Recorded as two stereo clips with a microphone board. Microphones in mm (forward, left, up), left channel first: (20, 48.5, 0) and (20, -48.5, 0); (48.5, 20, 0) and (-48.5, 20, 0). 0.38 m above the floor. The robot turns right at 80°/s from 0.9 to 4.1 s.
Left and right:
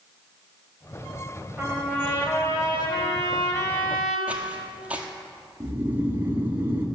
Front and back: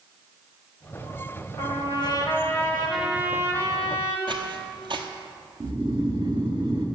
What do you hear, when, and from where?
1.6 s a trumpet: 20° right, 1.2 m; by 4.2 s straight behind, 1.2 m
4.3 s footsteps: 165° right, 0.7 m
5.6 s snoring: 155° right, 0.8 m